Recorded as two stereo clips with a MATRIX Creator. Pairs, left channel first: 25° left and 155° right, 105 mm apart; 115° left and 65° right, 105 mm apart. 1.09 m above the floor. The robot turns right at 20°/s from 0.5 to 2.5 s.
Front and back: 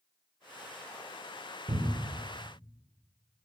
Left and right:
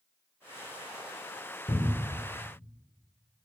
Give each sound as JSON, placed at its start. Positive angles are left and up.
{"t": 1.7, "sound": "a cupboard door", "azimuth_deg": 165, "distance_m": 0.5}